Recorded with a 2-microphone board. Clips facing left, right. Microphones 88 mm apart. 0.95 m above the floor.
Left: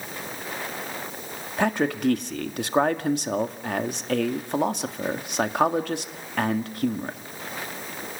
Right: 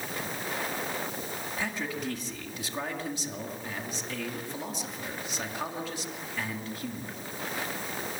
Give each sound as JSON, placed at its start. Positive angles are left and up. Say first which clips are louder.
{"t": 1.6, "sound": "a man speaking", "louder": "left 13 dB", "side_deg": 65, "distance_m": 2.0}